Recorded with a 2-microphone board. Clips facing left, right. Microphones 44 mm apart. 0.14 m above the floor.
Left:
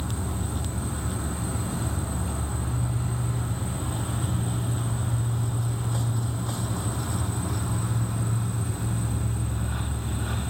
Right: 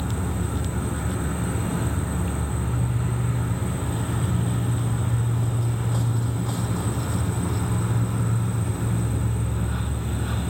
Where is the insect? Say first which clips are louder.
Right 4 dB; 45° right (ahead or behind), 0.8 m.